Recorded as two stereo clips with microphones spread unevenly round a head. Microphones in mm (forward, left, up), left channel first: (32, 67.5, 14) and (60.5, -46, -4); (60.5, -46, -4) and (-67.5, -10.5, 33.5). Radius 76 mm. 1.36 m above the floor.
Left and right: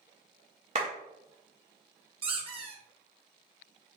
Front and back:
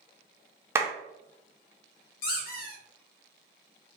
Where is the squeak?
30° right, 1.0 m.